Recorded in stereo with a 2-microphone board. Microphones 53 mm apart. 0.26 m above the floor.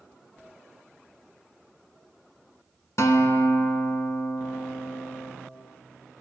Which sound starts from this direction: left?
A guitar, at 3.0 s.